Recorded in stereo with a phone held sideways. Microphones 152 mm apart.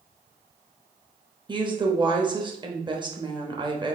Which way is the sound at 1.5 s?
30° right (ahead or behind).